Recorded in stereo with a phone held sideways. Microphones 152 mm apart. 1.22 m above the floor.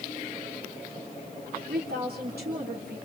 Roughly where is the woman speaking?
Right.